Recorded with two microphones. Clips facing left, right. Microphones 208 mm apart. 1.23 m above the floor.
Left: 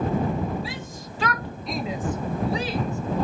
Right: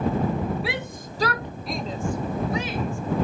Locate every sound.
0.6 s a shout: 70° right (ahead or behind); by 3.2 s 45° left (ahead or behind)